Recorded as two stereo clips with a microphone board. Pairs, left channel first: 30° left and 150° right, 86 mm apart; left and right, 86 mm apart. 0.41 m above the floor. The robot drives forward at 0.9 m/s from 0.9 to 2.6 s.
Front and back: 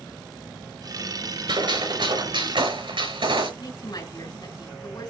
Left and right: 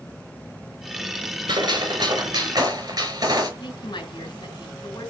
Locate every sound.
1.5 s a gunshot: 125° right, 5 m; by 3.5 s 135° right, 5.5 m
3.6 s a woman speaking: 65° left, 4.5 m